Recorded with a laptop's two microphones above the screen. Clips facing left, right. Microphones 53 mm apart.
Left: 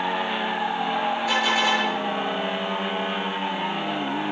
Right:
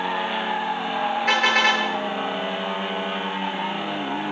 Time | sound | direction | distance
1.3 | a car horn | 60° right (ahead or behind) | 9.5 m